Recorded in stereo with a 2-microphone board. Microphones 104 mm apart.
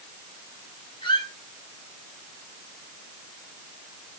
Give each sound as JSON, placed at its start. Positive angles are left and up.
{"t": 1.0, "sound": "a squeak", "side_deg": 50, "distance_m": 4.0}